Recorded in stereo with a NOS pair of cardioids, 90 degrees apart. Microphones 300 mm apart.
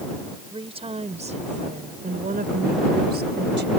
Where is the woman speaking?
15° right; by 3.7 s 35° right.